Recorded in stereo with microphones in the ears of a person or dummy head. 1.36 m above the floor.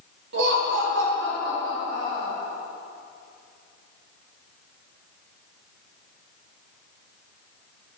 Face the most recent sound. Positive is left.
turn(degrees=-80)